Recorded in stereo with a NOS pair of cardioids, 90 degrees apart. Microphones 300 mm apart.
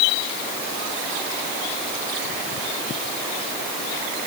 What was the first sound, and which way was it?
Only background noise.